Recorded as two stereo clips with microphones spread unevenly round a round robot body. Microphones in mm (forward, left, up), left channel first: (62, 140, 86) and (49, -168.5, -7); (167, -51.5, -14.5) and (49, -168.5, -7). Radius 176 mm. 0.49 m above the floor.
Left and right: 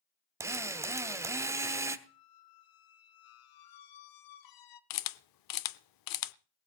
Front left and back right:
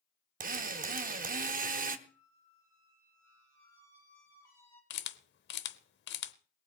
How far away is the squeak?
About 0.9 m.